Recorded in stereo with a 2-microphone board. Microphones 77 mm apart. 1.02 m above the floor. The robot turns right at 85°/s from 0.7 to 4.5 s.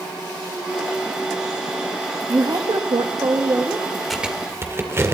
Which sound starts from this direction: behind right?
A woman speaking, at 2.3 s.